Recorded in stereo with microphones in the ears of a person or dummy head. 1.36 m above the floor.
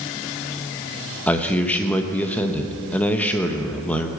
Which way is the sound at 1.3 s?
10° left (ahead or behind).